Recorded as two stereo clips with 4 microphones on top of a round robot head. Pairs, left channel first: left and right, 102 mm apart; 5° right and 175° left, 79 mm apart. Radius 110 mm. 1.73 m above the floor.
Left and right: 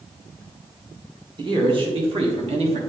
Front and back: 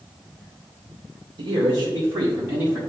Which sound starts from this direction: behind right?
A man speaking, at 1.4 s.